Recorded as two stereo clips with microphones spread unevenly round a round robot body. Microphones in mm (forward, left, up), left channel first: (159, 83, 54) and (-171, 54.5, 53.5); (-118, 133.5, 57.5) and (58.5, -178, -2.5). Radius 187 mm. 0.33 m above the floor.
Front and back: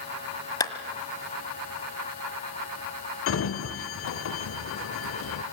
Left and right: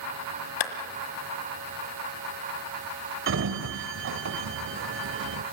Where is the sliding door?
30° right, 0.9 m.